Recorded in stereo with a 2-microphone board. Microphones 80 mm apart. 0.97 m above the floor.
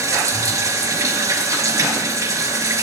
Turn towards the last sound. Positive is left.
turn(degrees=-45)  # may be behind; listen again after turning